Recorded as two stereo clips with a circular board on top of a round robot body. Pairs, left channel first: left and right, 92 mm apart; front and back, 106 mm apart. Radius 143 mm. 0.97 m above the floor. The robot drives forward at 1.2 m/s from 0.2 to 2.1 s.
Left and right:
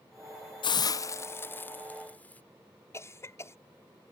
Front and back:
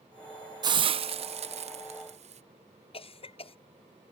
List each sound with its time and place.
0.6 s a hiss: 125° left; by 2.4 s 165° left
2.9 s a cough: 30° left